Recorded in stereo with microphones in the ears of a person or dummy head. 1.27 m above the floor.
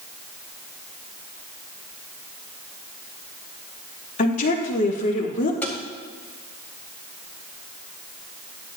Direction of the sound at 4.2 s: 40° left (ahead or behind).